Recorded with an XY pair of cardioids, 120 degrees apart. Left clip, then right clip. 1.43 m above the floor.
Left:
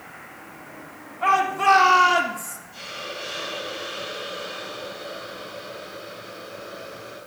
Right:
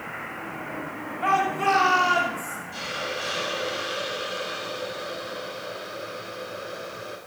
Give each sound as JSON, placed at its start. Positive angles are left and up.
{"t": 1.2, "sound": "a shout", "azimuth_deg": 10, "distance_m": 3.0}
{"t": 2.7, "sound": "a hiss", "azimuth_deg": -55, "distance_m": 3.0}